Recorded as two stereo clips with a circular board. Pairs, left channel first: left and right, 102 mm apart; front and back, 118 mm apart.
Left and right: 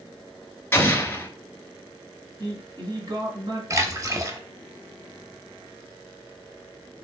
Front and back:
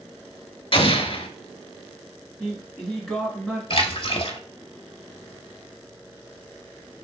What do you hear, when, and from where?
0.7 s an explosion: 25° left, 0.6 m
2.4 s a man speaking: 85° right, 1.5 m
3.7 s a splash: 35° right, 0.8 m